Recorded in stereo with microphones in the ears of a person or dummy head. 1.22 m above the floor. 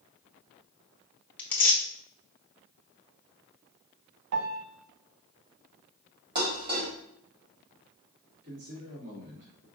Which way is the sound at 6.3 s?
45° right (ahead or behind).